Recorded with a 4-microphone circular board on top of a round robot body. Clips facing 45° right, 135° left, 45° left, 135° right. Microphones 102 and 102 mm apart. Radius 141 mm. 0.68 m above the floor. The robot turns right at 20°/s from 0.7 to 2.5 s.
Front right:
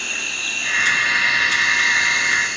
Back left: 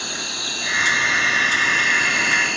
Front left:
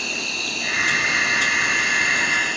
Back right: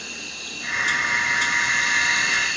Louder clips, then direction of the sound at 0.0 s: Back left 1 dB, front left 8 dB; 60° left.